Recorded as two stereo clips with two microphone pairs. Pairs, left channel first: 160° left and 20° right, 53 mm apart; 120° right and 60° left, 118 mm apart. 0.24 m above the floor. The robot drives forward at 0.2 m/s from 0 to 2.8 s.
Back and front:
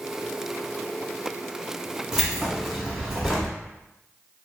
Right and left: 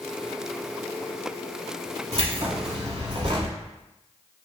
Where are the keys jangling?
60° left, 0.9 m; by 3.5 s 70° left, 0.9 m.